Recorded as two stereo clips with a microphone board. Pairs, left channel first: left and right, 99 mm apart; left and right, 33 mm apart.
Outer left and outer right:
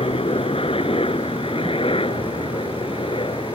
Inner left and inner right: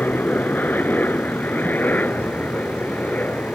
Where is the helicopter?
65° left (ahead or behind); by 3.5 s 60° left (ahead or behind).